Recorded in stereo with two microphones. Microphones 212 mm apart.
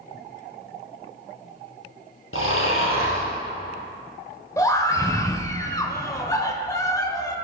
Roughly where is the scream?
Centre.